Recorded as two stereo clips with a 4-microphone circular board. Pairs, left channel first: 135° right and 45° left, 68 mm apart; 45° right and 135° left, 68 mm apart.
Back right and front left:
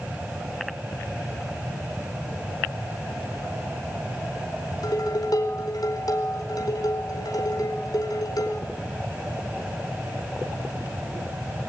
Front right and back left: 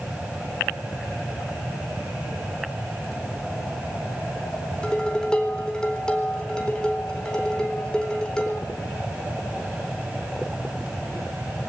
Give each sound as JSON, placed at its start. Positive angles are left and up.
{"t": 4.8, "sound": "dishes clattering", "azimuth_deg": -120, "distance_m": 4.0}